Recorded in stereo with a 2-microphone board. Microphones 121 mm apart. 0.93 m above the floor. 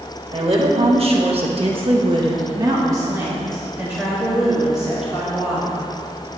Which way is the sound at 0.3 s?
45° right (ahead or behind).